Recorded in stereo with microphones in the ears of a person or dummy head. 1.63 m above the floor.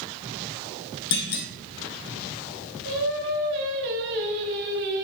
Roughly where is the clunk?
Left.